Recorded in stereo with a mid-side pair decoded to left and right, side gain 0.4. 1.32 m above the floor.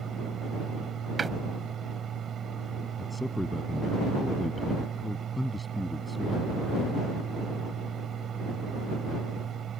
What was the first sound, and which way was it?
A fan, 65° right.